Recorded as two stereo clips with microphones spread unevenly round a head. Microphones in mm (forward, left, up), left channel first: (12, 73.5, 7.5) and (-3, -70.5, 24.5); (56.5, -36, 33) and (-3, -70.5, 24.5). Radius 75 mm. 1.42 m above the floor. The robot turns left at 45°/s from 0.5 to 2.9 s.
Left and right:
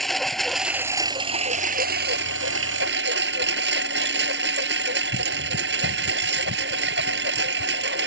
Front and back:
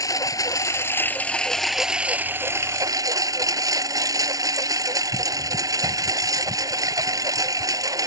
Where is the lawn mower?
5° right; by 8.1 s 115° right.